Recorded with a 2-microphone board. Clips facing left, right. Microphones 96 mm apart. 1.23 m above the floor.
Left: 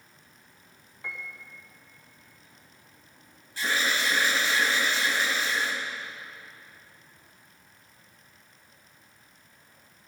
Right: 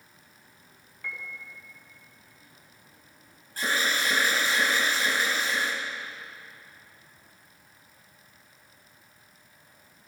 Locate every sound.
1.0 s a piano: 20° left (ahead or behind), 1.3 m
3.6 s an alarm: 45° right (ahead or behind), 2 m